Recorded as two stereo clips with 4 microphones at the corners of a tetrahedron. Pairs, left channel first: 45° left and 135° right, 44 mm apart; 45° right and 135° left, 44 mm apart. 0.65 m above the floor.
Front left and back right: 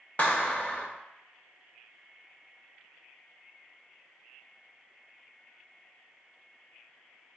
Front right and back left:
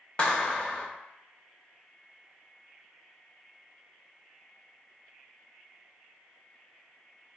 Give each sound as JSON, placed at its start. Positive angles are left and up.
{"t": 0.2, "sound": "a clap", "azimuth_deg": 5, "distance_m": 0.6}